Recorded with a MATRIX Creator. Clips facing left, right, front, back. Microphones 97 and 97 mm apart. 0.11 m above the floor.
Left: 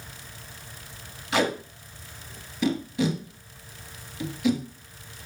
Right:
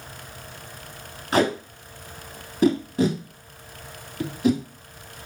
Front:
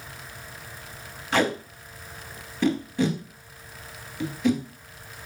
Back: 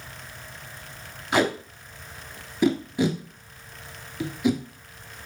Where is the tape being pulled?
110° right, 1.0 m.